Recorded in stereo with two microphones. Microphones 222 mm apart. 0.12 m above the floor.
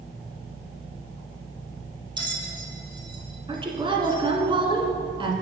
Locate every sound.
2.2 s a bell: 20° right (ahead or behind), 1.2 m
3.5 s a woman speaking: 25° right (ahead or behind), 1.1 m